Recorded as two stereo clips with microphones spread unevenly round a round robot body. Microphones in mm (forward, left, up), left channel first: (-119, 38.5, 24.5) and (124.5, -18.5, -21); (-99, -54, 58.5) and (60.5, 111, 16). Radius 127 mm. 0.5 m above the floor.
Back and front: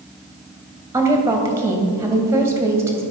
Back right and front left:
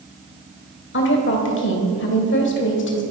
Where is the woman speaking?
90° right, 2.5 m.